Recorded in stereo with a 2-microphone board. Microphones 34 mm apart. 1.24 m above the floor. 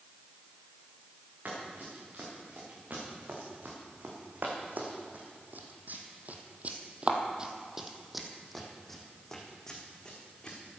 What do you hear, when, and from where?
1.4 s running footsteps: 55° right (ahead or behind), 6.5 m; by 10.6 s 25° left (ahead or behind), 4.5 m